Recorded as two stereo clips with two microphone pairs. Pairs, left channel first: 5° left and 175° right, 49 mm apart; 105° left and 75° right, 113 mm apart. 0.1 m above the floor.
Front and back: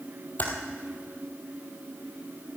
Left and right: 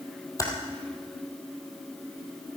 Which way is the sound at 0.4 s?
50° left.